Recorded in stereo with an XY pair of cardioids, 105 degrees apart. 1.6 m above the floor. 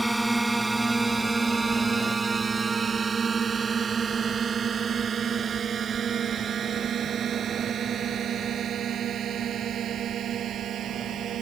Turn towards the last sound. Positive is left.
turn(degrees=-65)